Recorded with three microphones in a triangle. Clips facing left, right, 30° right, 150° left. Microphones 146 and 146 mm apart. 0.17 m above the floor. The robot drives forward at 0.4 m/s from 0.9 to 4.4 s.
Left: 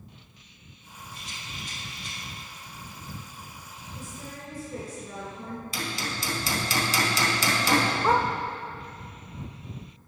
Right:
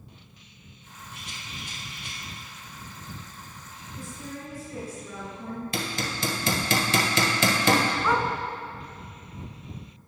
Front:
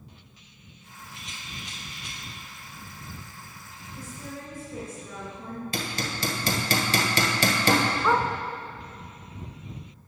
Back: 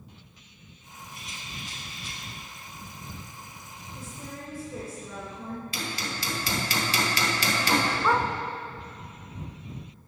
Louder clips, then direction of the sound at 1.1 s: Right 1 dB, even; 95° right.